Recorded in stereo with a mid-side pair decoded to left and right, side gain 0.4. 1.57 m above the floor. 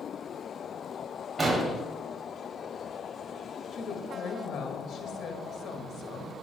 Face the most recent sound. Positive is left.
turn(degrees=65)